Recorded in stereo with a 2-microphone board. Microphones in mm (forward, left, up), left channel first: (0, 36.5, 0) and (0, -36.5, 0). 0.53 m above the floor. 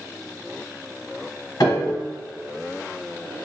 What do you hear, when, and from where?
1.6 s a piano: 65° left (ahead or behind), 0.8 m